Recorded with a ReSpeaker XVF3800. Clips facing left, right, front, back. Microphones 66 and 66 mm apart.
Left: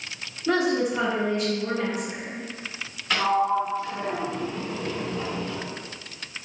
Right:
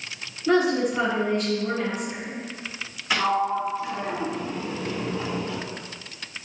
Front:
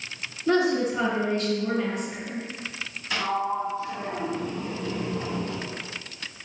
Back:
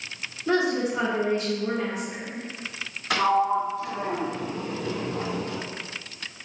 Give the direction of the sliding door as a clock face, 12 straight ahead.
6 o'clock.